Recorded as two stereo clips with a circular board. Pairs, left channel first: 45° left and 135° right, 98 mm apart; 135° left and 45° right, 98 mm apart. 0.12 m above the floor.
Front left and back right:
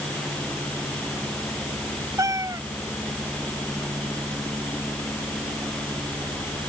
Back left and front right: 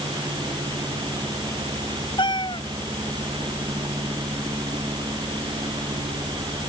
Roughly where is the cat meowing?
Behind.